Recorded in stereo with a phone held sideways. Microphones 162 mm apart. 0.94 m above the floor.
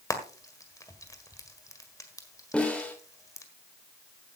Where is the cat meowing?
No cat meowing in this recording.